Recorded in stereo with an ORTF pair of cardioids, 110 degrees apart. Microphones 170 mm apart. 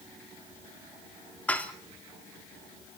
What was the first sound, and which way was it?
Dishes clattering, 10° left.